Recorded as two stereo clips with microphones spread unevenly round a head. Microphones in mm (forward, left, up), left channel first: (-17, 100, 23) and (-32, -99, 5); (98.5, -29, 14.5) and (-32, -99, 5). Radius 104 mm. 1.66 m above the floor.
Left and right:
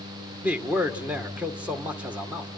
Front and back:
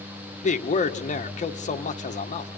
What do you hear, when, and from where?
0.4 s a man speaking: 10° right, 1.8 m